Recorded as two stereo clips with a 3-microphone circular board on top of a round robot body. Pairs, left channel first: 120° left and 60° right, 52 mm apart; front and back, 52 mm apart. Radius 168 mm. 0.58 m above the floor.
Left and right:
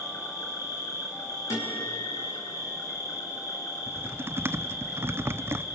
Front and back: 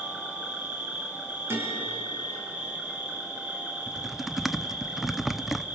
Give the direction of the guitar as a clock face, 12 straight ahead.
7 o'clock.